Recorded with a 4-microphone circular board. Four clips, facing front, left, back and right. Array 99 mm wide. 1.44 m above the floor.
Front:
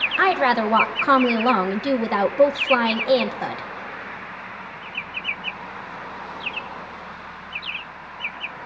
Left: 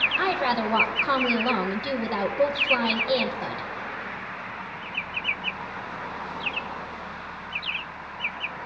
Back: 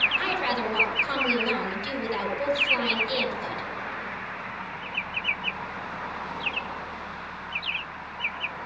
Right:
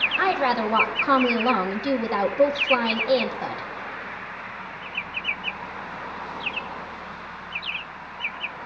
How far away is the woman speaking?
About 1.3 m.